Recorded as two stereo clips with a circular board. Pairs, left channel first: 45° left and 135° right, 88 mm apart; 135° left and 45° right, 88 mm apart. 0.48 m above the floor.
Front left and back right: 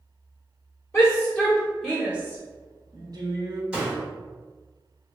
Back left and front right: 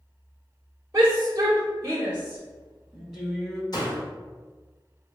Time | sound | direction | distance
0.9 | a shout | 15° right | 1.2 m
3.7 | a door slam | 150° left | 1.3 m